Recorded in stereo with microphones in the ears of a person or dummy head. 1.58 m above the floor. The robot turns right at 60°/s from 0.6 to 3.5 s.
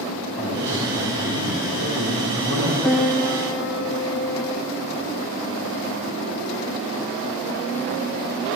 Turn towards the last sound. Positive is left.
turn(degrees=40)